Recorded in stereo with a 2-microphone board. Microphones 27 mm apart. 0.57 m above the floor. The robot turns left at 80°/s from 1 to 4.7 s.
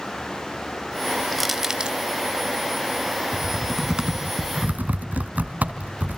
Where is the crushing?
5° left (ahead or behind), 2 m; by 2.0 s 45° right (ahead or behind), 2 m.